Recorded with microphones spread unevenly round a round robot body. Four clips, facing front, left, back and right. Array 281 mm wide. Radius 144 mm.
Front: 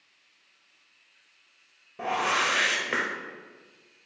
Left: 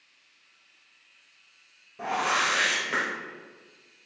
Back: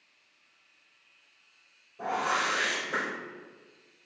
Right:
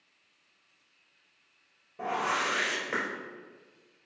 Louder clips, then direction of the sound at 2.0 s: Left 3 dB, front 2 dB; 15° left.